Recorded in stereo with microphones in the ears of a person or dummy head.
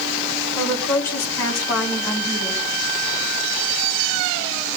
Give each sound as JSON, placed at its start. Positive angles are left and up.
{"t": 0.6, "sound": "a woman speaking", "side_deg": 15, "distance_m": 4.5}